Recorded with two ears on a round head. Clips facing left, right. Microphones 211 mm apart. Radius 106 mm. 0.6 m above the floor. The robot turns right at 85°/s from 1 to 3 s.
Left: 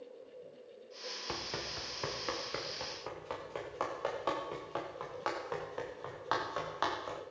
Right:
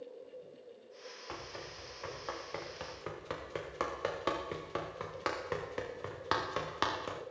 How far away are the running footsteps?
About 6 m.